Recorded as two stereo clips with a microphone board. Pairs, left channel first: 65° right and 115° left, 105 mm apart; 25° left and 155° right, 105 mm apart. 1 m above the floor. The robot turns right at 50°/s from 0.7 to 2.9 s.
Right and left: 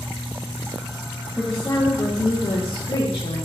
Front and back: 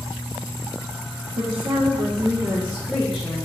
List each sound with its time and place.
1.4 s a woman speaking: 150° right, 0.5 m; by 3.5 s 70° right, 0.5 m